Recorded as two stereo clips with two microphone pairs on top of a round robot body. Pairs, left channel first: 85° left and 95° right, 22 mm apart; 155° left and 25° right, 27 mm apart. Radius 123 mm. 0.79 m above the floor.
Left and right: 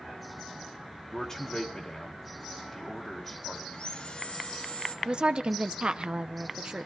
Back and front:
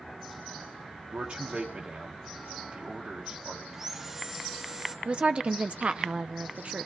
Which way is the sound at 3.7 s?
45° left.